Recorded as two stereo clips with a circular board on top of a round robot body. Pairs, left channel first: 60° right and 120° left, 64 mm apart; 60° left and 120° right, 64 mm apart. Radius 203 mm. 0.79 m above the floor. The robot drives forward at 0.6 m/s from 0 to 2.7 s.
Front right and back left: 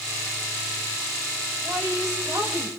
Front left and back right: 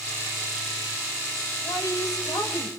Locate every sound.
1.6 s a woman speaking: 75° left, 6 m; by 2.8 s 80° left, 6 m